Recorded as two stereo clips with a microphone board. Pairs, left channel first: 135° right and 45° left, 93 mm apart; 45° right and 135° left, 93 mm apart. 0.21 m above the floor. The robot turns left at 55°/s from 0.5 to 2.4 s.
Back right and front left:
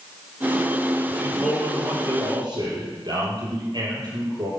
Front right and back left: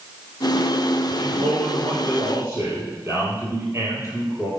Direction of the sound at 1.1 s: 150° left.